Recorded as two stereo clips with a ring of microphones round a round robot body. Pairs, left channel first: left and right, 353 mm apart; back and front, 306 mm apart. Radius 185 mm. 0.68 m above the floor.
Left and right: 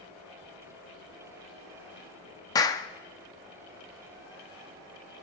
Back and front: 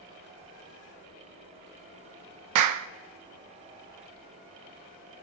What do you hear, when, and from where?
2.5 s a clap: 10° left, 0.5 m